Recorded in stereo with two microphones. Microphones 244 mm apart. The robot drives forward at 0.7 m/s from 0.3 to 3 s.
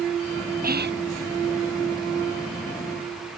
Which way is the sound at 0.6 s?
40° right (ahead or behind).